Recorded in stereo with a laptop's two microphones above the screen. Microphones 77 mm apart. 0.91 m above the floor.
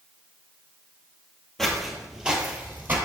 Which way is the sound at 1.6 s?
5° left (ahead or behind).